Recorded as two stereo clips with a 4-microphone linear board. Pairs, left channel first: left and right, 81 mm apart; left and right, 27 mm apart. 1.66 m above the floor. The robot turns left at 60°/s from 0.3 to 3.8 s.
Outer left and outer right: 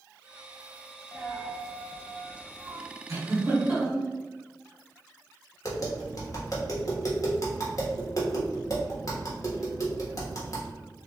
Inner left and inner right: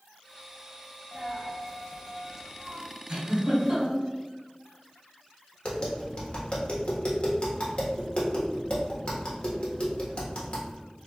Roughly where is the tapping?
Left.